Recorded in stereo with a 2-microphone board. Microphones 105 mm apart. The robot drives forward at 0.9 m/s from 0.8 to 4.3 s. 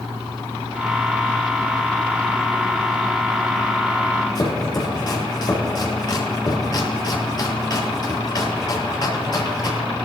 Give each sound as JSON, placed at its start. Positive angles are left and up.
{"t": 4.3, "sound": "chopping", "side_deg": 40, "distance_m": 3.5}